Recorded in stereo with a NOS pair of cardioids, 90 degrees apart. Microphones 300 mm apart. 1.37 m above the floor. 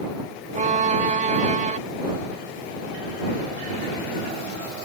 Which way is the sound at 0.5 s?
25° right.